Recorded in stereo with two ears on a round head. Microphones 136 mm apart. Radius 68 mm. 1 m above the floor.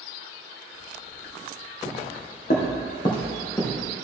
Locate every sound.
1.9 s footsteps: 65° left (ahead or behind), 2.5 m; by 3.9 s 15° left (ahead or behind), 3 m